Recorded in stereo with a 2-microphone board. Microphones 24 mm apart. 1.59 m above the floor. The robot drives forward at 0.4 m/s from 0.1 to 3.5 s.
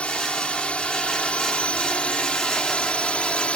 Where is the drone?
55° left (ahead or behind); by 3.6 s 50° left (ahead or behind).